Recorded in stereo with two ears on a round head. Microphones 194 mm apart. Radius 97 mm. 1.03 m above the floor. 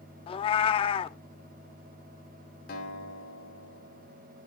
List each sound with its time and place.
0.3 s a cat meowing: 25° left (ahead or behind), 0.5 m
2.7 s a guitar: 45° left (ahead or behind), 2 m